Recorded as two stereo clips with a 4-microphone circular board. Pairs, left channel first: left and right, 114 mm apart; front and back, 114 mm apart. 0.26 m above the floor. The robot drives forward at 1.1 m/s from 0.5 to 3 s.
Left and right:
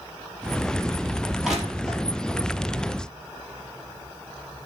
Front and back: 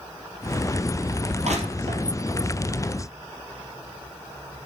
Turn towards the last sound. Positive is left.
turn(degrees=180)